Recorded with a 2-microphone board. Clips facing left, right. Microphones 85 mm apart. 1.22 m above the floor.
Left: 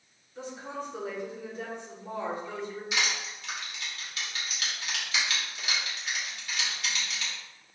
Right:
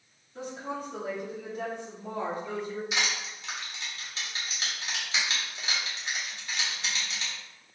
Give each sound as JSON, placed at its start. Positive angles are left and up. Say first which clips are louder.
{"t": 0.3, "sound": "a woman speaking", "louder": "right 2 dB", "side_deg": -60, "distance_m": 0.8}
{"t": 2.9, "sound": "crushing", "louder": "even", "side_deg": -25, "distance_m": 1.2}